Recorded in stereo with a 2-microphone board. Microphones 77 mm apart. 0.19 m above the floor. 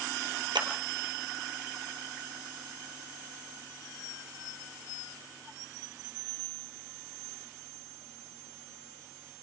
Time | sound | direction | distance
0.6 | a clap | 75° right (ahead or behind) | 3 m